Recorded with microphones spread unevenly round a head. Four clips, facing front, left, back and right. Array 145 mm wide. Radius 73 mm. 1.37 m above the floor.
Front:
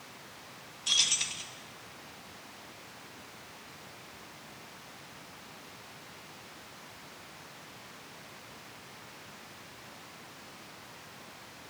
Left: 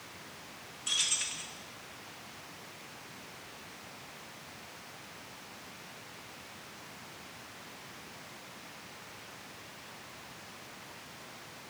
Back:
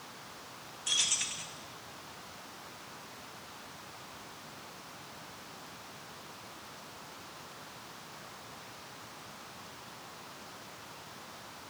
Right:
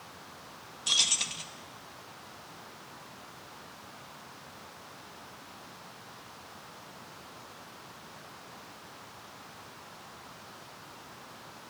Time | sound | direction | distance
0.9 | keys jangling | 80° right | 1.4 m